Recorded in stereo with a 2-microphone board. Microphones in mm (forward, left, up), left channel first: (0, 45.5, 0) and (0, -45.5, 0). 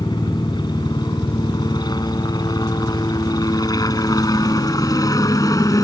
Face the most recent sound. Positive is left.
turn(degrees=40)  # may be behind; listen again after turning